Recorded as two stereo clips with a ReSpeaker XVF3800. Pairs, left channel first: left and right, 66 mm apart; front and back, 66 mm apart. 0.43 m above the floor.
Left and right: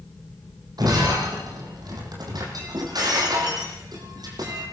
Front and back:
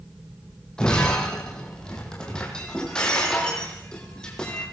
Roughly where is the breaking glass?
Right.